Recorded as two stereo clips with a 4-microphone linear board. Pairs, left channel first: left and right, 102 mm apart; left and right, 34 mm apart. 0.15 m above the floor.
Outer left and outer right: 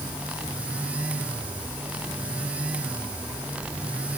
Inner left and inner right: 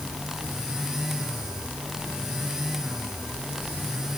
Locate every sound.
Only background noise.